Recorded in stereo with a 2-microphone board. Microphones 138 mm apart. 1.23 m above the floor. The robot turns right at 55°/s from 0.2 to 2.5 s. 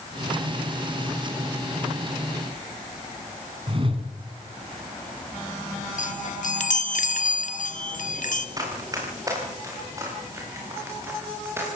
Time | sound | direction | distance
3.7 | a whoosh | 40° right (ahead or behind) | 3.5 m
6.0 | a chime | 65° left (ahead or behind) | 1.4 m
8.6 | running footsteps | 25° right (ahead or behind) | 8 m